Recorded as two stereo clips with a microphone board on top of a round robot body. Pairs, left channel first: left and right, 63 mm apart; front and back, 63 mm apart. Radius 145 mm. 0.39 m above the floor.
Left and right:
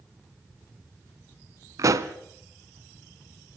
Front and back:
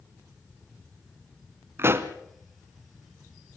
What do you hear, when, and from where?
1.8 s a pop: 130° right, 1.0 m